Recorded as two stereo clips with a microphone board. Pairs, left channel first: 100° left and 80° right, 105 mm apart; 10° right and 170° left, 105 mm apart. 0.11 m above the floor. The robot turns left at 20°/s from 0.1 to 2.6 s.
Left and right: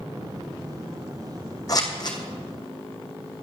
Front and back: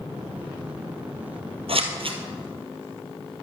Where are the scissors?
150° left, 1.4 m; by 2.2 s 140° left, 1.4 m.